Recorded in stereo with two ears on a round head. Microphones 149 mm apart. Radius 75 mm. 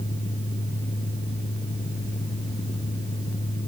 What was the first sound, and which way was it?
Only background noise.